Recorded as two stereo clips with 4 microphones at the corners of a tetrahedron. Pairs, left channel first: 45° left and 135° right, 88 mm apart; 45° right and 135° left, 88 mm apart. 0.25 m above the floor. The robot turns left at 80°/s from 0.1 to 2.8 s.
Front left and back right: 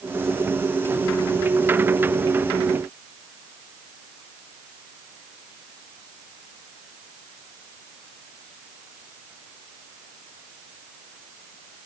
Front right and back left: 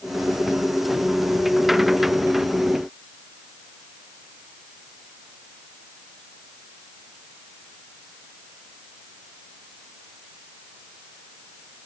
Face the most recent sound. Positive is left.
No sound to turn to.